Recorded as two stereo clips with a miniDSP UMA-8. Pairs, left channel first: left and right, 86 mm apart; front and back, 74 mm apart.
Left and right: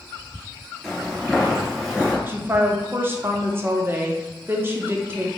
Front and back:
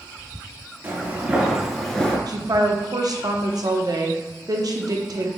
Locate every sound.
0.8 s footsteps: 175° left, 1.3 m; by 2.2 s straight ahead, 1.1 m
2.3 s a woman speaking: 155° right, 0.7 m